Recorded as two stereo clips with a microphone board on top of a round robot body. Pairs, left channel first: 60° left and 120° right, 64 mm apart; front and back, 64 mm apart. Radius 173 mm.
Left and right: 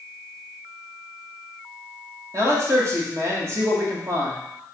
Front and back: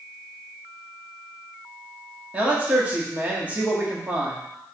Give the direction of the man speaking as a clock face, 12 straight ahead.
4 o'clock.